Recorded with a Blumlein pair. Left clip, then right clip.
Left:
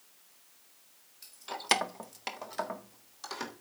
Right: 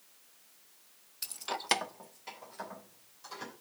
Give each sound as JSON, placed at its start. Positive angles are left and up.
{"t": 1.2, "sound": "keys jangling", "azimuth_deg": -55, "distance_m": 0.6}